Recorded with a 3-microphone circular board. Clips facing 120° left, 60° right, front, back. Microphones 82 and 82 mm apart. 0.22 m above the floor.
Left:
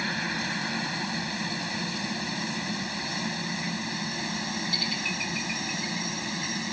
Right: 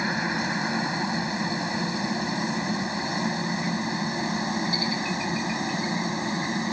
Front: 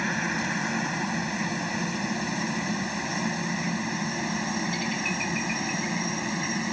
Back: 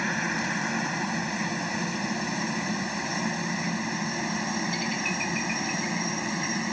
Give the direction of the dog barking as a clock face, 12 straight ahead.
I don't hear a dog barking.